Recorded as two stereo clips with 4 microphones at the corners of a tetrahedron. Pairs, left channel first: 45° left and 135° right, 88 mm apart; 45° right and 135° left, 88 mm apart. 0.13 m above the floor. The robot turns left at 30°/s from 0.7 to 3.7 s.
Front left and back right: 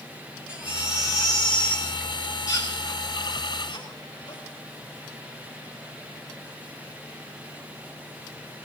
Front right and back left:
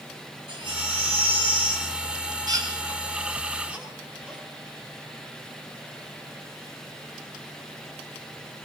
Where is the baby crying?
150° left, 7 m; by 4.4 s 60° left, 7 m.